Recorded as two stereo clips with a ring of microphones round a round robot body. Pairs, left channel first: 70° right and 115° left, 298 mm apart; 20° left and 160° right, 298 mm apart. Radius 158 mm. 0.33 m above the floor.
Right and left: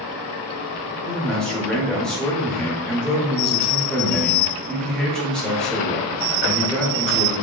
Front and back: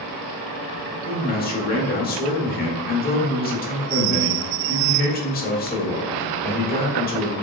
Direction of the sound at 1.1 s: 20° left.